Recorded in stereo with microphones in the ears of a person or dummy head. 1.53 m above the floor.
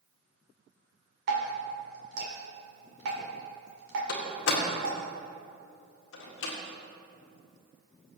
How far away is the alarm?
No alarm in this recording.